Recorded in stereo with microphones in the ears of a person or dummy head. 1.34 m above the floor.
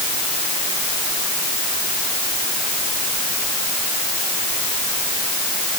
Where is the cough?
No cough in this recording.